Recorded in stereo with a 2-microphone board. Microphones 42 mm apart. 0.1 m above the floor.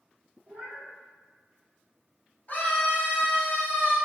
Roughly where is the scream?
Left.